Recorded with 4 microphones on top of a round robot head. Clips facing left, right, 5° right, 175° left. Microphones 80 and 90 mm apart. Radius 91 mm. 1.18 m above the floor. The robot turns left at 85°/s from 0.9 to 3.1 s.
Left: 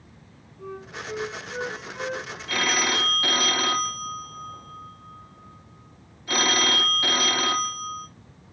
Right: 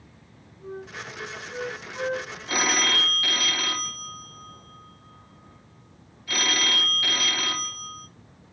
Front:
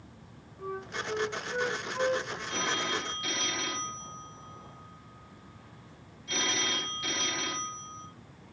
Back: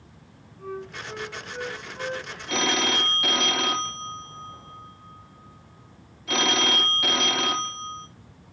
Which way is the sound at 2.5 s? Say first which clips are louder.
Even, back 8 dB; 155° right.